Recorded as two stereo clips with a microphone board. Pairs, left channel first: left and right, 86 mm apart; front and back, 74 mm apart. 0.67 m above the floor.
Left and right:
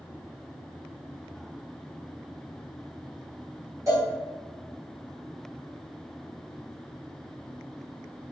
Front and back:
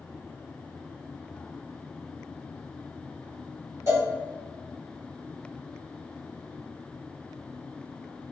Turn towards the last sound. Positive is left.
turn(degrees=-140)